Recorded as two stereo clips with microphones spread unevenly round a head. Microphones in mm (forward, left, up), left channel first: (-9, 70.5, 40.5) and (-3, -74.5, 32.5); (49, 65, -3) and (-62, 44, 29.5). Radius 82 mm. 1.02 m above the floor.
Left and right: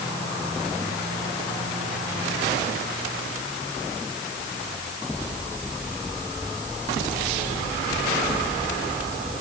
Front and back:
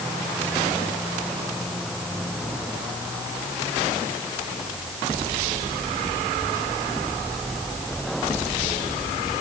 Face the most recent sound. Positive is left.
No sound to turn to.